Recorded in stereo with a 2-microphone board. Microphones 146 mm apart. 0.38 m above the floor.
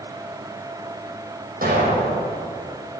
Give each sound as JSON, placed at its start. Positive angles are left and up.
{"t": 1.6, "sound": "an explosion", "side_deg": -75, "distance_m": 6.0}